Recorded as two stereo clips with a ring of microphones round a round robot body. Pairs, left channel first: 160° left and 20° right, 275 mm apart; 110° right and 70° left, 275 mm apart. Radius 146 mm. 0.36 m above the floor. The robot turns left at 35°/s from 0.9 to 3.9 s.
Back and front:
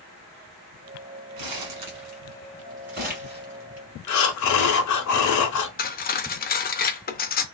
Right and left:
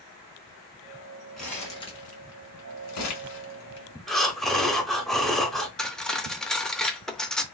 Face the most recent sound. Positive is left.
turn(degrees=160)